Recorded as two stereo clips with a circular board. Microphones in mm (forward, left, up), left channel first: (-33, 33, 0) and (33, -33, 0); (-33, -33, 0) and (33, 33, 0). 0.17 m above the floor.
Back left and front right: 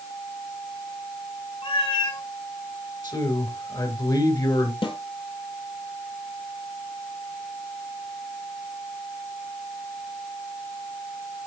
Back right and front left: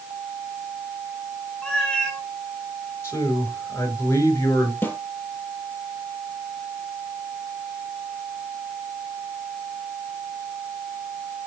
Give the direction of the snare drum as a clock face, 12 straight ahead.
7 o'clock.